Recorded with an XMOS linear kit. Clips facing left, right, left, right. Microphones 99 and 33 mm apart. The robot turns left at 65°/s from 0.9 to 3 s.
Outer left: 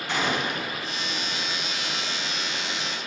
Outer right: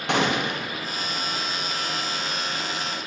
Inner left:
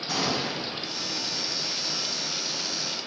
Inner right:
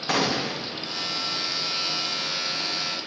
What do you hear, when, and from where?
0.1 s a gunshot: 70° right (ahead or behind), 0.9 m